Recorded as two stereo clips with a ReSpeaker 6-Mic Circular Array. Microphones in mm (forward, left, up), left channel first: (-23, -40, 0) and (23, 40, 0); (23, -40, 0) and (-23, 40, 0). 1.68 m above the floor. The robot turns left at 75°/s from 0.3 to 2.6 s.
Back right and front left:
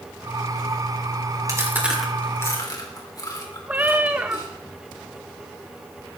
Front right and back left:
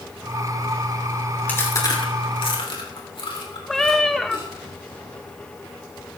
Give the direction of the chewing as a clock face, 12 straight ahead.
12 o'clock.